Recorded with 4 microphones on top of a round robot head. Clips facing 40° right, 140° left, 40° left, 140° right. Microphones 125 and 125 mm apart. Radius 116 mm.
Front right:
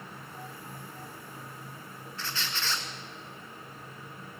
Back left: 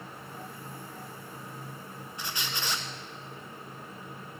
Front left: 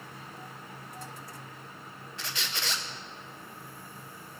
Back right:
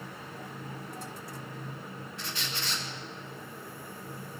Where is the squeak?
65° left, 0.7 m.